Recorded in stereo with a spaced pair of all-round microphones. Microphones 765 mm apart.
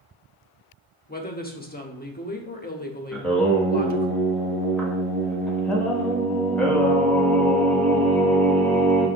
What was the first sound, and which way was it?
A woman speaking, 10° left (ahead or behind).